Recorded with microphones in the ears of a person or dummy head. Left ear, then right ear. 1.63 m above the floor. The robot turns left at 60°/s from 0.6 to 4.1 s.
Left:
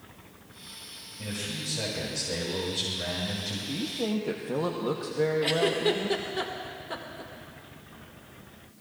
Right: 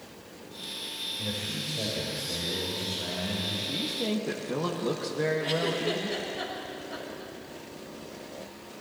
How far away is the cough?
No cough in this recording.